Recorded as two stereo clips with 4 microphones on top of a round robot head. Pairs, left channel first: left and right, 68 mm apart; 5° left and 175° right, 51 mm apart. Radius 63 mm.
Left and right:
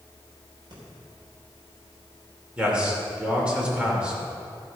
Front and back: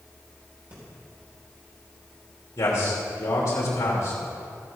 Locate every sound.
0.7 s breathing: 115° right, 4 m
2.6 s a man speaking: 15° right, 2.5 m